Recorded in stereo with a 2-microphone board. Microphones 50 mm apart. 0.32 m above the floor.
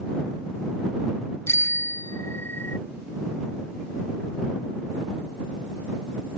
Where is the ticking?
I don't hear ticking.